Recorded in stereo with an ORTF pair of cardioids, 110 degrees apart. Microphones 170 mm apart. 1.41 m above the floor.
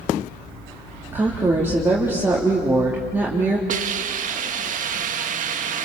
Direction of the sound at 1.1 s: 10° right.